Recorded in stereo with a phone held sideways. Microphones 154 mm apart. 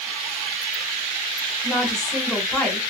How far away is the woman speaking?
About 1.7 m.